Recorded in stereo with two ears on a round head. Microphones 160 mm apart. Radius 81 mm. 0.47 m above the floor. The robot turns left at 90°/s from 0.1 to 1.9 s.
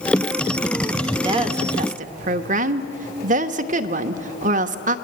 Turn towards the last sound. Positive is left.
turn(degrees=-95)